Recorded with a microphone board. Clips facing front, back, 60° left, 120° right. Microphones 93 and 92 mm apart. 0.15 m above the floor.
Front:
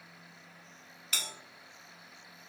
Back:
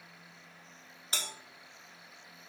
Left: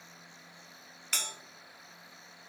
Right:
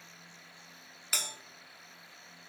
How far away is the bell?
About 0.6 m.